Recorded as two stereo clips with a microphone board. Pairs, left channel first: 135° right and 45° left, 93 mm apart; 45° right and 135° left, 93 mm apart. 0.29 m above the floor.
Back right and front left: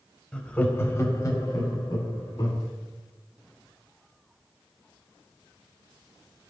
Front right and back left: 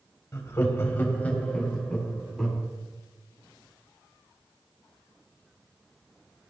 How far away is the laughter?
About 1.0 m.